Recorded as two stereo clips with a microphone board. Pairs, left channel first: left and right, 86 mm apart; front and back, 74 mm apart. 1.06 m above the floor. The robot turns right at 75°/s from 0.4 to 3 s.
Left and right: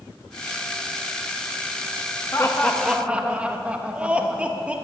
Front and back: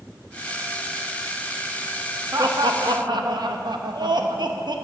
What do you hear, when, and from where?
2.3 s laughter: 145° left, 1.0 m; by 4.8 s 165° right, 1.0 m